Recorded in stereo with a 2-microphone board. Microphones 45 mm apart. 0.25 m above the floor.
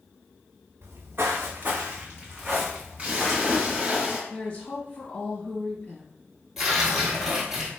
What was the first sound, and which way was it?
Footsteps, 65° right (ahead or behind).